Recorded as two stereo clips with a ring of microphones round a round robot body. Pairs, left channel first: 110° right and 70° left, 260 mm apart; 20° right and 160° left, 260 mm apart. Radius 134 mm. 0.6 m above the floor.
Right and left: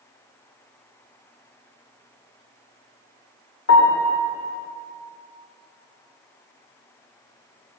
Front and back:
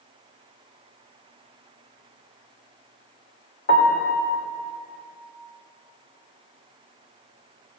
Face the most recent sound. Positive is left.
turn(degrees=-75)